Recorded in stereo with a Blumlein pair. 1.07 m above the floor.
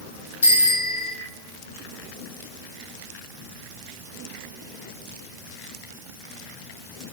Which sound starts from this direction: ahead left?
A bicycle bell, at 0.4 s.